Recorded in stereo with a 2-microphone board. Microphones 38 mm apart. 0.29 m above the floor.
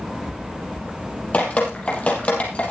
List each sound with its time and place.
1.3 s dripping: 35° left (ahead or behind), 4.5 m